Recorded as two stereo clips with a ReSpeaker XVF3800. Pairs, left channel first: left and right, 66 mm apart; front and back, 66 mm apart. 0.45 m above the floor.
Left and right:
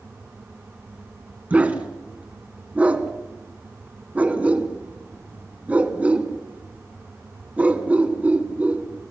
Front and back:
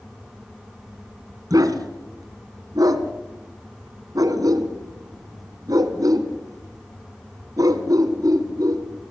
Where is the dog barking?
160° right, 1.9 m.